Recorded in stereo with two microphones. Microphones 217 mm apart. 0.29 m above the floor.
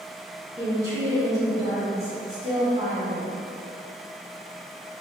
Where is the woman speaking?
15° right (ahead or behind), 1.6 m.